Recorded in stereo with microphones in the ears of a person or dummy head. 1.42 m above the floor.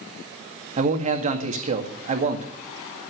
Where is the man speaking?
40° right (ahead or behind), 1.9 m.